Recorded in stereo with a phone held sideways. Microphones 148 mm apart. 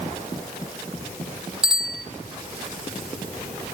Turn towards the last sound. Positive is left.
turn(degrees=-5)  # may be behind; listen again after turning